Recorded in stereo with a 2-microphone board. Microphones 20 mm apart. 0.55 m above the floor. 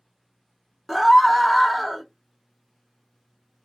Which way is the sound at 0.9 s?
15° left (ahead or behind).